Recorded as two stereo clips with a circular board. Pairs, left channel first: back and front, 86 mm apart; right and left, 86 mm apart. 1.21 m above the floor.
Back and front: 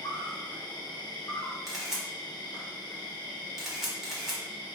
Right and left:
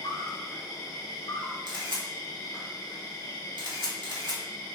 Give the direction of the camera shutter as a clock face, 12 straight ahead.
9 o'clock.